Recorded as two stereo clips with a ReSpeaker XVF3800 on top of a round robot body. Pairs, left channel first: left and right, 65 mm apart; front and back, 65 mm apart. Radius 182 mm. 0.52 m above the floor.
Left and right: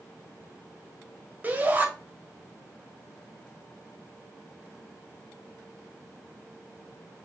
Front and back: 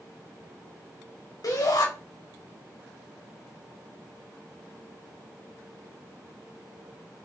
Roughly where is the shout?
Ahead right.